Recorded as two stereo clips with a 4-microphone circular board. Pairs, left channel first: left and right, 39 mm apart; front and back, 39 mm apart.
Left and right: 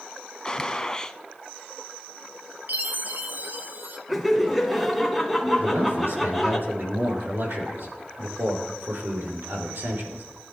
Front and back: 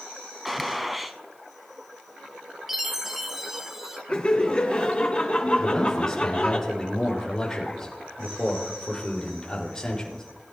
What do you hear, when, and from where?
0.5 s a gunshot: 95° left, 0.7 m
2.7 s a chime: 105° right, 1.0 m
4.1 s laughter: 5° right, 1.1 m
5.6 s a man speaking: 70° right, 4.5 m